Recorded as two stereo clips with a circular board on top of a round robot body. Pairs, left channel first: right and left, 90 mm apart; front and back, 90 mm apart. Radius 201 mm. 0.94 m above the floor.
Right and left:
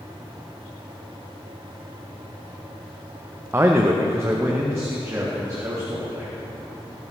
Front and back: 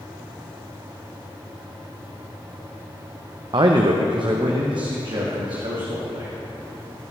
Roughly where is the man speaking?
Behind left.